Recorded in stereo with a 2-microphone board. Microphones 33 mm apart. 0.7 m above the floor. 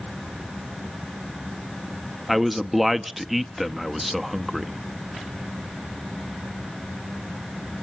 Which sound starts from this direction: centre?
A man speaking, at 2.3 s.